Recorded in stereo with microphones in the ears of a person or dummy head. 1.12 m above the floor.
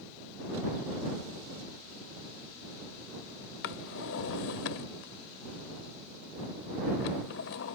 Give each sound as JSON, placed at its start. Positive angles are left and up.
{"t": 3.6, "sound": "a drawer", "side_deg": 55}